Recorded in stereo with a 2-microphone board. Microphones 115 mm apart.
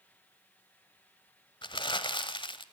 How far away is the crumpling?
About 1.1 m.